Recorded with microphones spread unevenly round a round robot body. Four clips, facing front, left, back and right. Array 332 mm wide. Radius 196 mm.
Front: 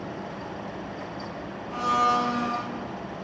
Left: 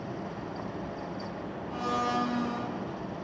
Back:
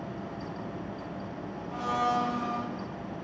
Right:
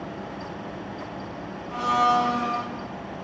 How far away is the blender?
About 9 m.